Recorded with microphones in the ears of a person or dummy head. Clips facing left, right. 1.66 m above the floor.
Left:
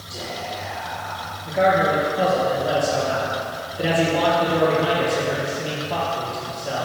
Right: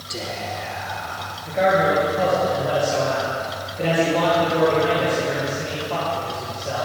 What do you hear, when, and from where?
0.1 s whispering: 40° right (ahead or behind), 1.0 m
1.4 s a man speaking: 5° left (ahead or behind), 1.7 m